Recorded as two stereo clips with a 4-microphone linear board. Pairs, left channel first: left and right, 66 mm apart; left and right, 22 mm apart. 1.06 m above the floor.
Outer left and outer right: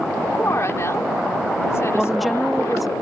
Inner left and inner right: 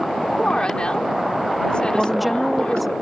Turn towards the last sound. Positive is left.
turn(degrees=0)  # may be behind; listen again after turning